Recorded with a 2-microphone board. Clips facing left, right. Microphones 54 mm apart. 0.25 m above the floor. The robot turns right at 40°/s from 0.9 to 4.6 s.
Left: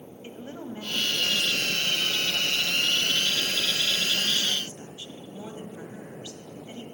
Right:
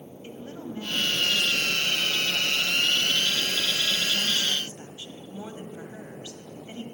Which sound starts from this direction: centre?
A woman speaking, at 0.2 s.